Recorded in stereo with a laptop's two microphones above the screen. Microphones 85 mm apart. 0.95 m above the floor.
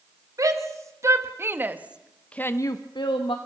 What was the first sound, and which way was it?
A shout, 40° right (ahead or behind).